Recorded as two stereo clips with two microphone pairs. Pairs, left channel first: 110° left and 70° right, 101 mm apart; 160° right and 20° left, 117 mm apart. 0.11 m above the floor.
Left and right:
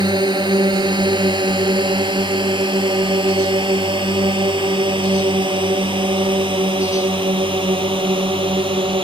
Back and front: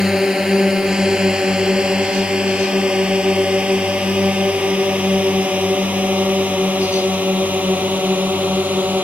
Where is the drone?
65° right; by 9.1 s 55° right.